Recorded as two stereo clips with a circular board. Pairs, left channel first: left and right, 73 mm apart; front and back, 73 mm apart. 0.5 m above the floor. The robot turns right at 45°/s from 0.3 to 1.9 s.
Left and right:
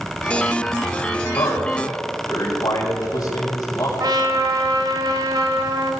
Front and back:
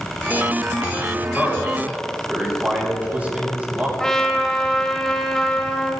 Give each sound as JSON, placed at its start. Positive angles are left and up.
{"t": 1.3, "sound": "a man speaking", "azimuth_deg": 85, "distance_m": 5.0}
{"t": 4.0, "sound": "a trumpet", "azimuth_deg": -80, "distance_m": 1.3}